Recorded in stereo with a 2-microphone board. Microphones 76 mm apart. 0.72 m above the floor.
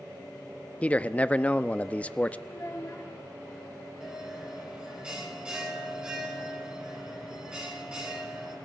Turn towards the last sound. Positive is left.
turn(degrees=-10)  # may be behind; listen again after turning